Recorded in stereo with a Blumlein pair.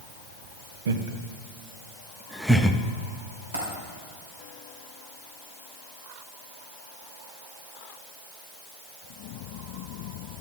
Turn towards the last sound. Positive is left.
turn(degrees=-70)